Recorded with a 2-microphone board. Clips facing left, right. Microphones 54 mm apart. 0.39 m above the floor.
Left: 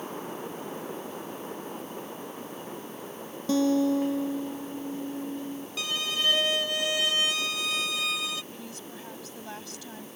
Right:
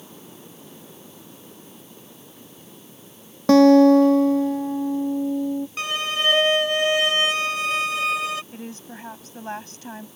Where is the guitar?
80° right.